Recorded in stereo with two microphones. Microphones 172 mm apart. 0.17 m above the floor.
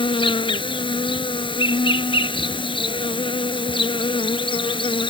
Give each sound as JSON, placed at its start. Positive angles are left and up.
{"t": 0.0, "sound": "an insect", "side_deg": 30}